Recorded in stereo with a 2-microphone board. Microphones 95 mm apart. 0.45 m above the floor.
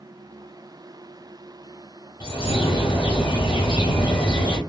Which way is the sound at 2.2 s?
55° left (ahead or behind).